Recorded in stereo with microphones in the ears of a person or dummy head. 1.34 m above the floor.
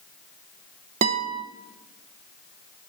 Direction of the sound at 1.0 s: 40° right (ahead or behind).